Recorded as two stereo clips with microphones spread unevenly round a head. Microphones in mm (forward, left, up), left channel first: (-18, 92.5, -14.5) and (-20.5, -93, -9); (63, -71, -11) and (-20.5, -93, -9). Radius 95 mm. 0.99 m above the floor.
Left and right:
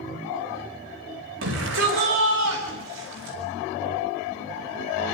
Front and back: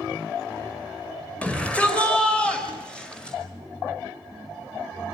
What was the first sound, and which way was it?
A shout, 60° right.